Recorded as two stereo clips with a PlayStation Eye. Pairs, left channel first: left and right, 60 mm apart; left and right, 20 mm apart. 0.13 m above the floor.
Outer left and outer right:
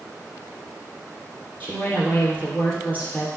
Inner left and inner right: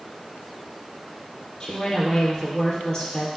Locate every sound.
1.6 s a woman speaking: 25° left (ahead or behind), 3 m